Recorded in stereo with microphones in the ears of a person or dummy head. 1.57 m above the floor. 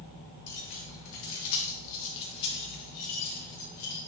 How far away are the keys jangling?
About 1.9 m.